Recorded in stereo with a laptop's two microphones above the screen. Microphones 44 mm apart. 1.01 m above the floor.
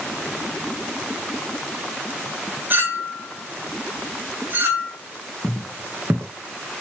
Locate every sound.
2.7 s a clink: 45° right (ahead or behind), 2.5 m
5.4 s footsteps: 45° right (ahead or behind), 2.5 m